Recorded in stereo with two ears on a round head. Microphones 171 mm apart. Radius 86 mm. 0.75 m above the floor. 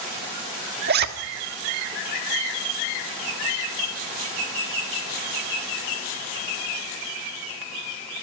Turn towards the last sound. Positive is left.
turn(degrees=-55)  # may be behind; listen again after turning